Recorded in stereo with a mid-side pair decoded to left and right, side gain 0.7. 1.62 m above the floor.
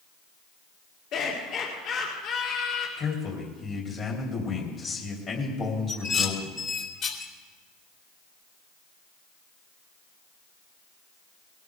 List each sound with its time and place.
1.1 s laughter: 50° left, 4 m
3.0 s a man speaking: 40° left, 3.5 m
5.9 s dishes clattering: 45° left, 3.5 m